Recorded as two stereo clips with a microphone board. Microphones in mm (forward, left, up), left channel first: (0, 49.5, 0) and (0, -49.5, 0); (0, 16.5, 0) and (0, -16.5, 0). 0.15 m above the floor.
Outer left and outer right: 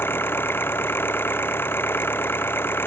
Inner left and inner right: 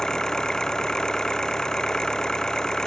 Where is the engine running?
20° left (ahead or behind).